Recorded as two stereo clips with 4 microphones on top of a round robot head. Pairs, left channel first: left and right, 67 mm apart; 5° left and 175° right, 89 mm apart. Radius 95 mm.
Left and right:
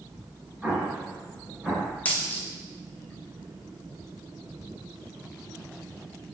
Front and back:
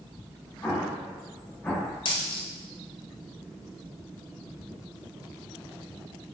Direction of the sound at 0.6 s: 45° right.